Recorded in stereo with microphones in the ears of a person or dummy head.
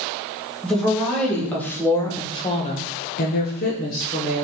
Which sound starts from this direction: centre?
A woman speaking, at 0.6 s.